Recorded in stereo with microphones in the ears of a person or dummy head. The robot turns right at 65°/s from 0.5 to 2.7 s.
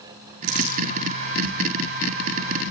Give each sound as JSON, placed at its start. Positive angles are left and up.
{"t": 0.4, "sound": "crumpling", "side_deg": -65, "distance_m": 6.5}